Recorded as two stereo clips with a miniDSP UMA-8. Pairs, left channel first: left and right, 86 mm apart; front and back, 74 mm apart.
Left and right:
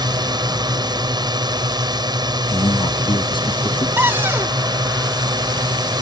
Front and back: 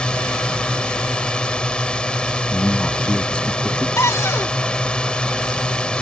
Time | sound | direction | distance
0.0 | a drone | 75° right | ?
2.5 | a man speaking | 75° left | ?
4.0 | a cupboard door | 35° right | ?